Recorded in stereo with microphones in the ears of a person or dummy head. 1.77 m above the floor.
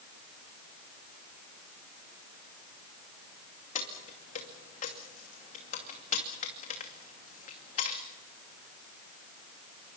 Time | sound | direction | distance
3.8 | keys jangling | 45° left (ahead or behind) | 2.5 m